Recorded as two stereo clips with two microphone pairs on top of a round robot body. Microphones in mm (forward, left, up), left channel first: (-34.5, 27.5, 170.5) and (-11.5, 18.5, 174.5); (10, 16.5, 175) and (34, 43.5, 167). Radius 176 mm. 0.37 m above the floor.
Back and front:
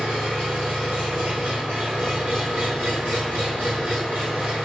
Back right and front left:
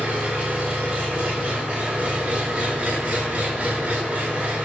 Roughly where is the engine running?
Ahead.